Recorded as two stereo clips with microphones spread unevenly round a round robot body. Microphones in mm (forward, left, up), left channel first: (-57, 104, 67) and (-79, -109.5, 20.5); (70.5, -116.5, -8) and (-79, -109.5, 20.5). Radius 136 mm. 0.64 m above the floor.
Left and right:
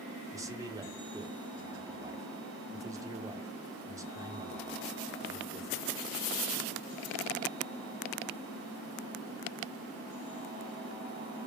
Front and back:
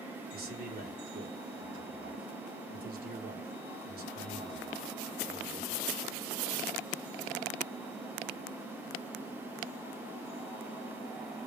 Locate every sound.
0.3 s a man speaking: 165° right, 1.3 m